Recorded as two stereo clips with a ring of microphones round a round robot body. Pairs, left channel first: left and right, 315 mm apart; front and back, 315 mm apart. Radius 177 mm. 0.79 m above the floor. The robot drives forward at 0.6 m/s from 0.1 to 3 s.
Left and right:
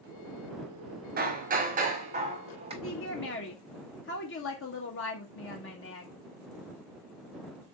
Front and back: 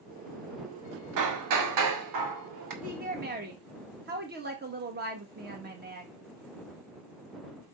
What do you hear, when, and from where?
1.2 s hammering: 155° right, 1.9 m; by 2.7 s 165° right, 2.5 m
2.8 s a woman speaking: 125° left, 1.3 m; by 6.1 s 130° left, 1.3 m